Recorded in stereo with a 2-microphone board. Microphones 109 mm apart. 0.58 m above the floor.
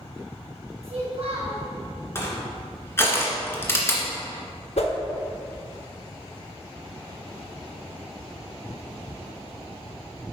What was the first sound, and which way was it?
A child speaking, 70° right (ahead or behind).